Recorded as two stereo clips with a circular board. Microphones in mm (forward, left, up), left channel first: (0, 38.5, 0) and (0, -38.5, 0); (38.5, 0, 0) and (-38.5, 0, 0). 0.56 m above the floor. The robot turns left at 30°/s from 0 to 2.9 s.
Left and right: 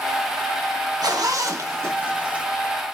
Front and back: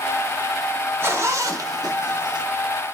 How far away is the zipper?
About 0.6 m.